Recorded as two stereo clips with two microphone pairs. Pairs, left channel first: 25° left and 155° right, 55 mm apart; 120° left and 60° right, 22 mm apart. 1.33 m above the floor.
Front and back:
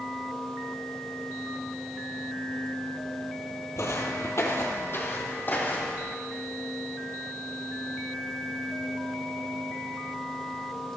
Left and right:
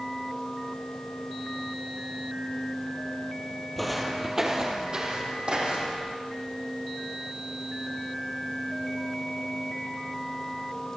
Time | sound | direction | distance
3.8 | footsteps | 35° left | 2 m